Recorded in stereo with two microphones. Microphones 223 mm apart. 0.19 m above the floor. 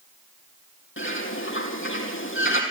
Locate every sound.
1.0 s a bird: 65° left (ahead or behind), 2.5 m